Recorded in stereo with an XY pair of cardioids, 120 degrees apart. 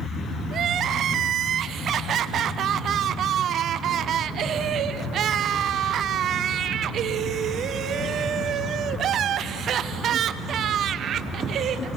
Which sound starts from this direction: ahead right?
Crying, at 0.5 s.